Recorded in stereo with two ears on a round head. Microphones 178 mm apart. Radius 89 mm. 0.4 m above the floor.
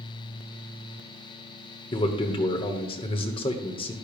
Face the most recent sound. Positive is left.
turn(degrees=25)  # may be behind; listen again after turning